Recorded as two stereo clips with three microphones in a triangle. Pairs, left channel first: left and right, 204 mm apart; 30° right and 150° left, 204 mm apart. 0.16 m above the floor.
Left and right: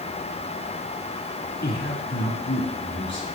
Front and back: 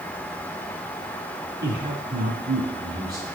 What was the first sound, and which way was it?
A man speaking, 125° left.